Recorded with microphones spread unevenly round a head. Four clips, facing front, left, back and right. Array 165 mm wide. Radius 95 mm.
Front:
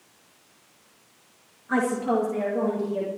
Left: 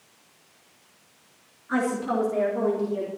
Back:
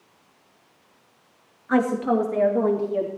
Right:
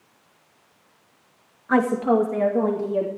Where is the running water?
I don't hear running water.